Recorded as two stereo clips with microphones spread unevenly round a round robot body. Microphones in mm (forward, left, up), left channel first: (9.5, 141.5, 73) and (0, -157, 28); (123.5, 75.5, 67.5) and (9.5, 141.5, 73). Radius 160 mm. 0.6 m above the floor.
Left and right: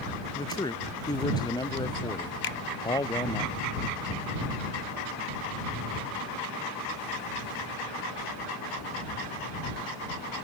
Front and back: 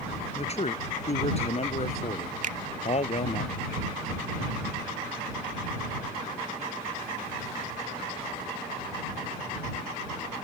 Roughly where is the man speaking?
Ahead.